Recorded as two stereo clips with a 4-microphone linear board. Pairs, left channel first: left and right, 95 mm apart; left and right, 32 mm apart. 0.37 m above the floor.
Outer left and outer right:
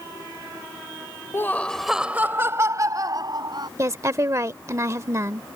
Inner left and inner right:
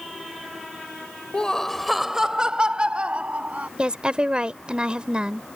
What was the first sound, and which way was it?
Laughter, 30° left (ahead or behind).